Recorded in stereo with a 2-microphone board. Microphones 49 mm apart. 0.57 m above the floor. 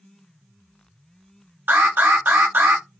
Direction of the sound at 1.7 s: 45° right (ahead or behind).